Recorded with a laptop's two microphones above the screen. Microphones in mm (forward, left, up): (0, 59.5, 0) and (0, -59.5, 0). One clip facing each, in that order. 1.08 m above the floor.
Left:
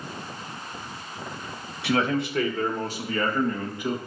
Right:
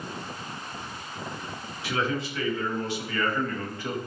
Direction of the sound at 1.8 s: 65° left (ahead or behind).